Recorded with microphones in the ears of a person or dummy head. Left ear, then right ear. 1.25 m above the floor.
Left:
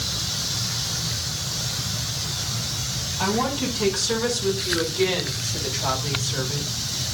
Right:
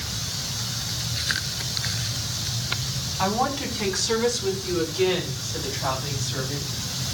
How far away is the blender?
I don't hear a blender.